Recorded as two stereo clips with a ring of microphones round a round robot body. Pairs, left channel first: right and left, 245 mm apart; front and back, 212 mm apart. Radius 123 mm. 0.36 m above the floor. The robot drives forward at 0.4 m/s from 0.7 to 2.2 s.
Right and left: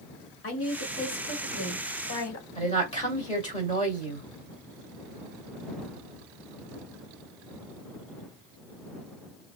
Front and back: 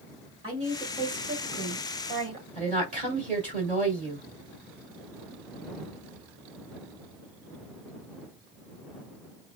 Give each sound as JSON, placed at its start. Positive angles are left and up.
{"t": 0.4, "sound": "a woman speaking", "azimuth_deg": -115, "distance_m": 1.5}
{"t": 2.5, "sound": "a woman speaking", "azimuth_deg": -150, "distance_m": 1.7}